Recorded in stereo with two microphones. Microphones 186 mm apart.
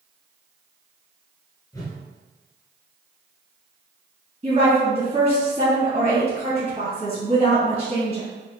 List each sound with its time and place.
1.7 s a whoosh: 20° left (ahead or behind), 1.0 m
4.4 s a woman speaking: 35° right (ahead or behind), 1.9 m